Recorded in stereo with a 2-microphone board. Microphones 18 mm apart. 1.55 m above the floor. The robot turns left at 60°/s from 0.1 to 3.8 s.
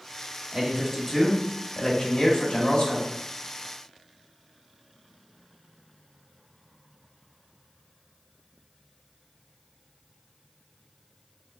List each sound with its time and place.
0.5 s a man speaking: 135° right, 1.3 m; by 3.1 s 75° left, 1.3 m